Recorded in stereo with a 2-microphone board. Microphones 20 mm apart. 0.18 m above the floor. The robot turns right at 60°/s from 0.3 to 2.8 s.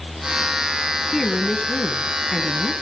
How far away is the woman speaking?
About 1.7 m.